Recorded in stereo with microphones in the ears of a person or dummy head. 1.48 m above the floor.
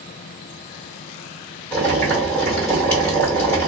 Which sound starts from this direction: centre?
Boiling, at 1.7 s.